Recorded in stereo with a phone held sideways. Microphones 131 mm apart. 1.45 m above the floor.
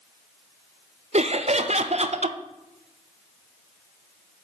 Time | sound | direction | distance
1.1 | laughter | 55° right (ahead or behind) | 0.6 m